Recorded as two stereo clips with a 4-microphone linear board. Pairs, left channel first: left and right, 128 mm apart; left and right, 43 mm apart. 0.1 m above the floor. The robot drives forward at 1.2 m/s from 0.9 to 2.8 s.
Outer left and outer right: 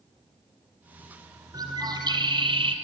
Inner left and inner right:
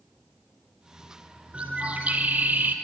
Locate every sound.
1.5 s a bird: 30° right (ahead or behind), 3 m; by 2.8 s 45° right (ahead or behind), 2 m